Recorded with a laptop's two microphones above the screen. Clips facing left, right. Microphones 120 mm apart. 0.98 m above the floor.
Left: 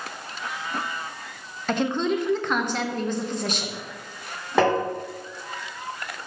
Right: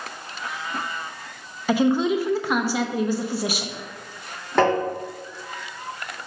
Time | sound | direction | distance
1.7 | a woman speaking | 5° right (ahead or behind) | 0.6 m
4.6 | tapping | 5° left (ahead or behind) | 3 m